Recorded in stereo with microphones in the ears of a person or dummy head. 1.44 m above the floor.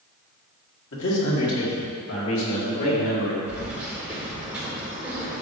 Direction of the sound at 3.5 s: 5° right (ahead or behind).